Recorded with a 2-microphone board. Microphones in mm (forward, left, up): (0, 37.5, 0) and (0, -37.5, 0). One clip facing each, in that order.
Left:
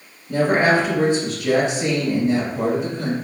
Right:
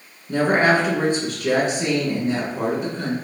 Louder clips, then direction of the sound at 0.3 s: Even; 55° right (ahead or behind).